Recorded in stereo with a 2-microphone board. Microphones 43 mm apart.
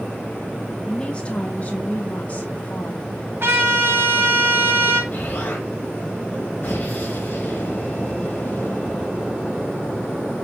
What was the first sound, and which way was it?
A woman speaking, 20° left (ahead or behind).